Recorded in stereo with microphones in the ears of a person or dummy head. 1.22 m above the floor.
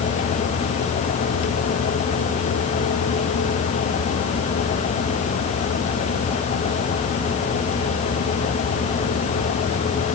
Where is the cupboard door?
I don't hear a cupboard door.